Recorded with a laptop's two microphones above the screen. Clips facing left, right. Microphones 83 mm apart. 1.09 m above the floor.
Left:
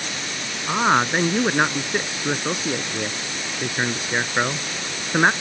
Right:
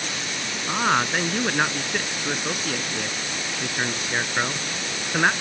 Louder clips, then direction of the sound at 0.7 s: Left 3 dB; 20° left (ahead or behind).